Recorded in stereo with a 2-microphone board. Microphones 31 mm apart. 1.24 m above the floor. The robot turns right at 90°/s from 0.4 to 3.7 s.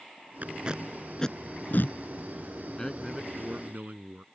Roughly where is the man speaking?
Behind left.